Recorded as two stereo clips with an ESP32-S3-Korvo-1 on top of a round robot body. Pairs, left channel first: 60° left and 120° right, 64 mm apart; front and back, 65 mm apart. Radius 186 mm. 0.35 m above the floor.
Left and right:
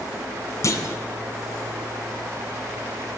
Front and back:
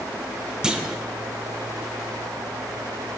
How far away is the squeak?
I don't hear a squeak.